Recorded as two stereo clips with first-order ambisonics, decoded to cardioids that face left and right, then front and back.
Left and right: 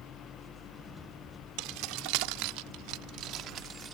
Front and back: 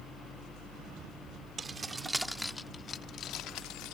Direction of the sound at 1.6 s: 110° right.